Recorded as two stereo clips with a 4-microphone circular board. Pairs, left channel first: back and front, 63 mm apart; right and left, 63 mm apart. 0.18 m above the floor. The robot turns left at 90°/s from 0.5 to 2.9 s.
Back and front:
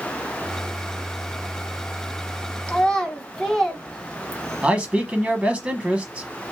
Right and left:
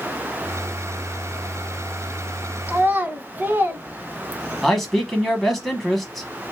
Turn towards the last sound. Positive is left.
turn(degrees=-10)